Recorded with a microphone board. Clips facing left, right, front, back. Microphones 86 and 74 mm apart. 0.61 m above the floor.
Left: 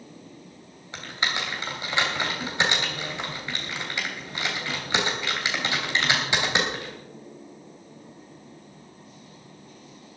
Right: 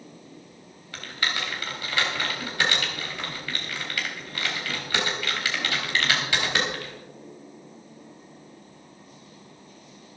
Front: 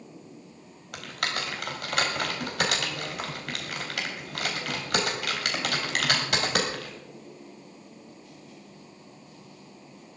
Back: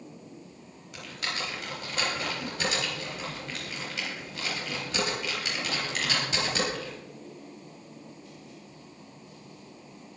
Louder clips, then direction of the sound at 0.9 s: Left 1 dB, front 4 dB; 20° left.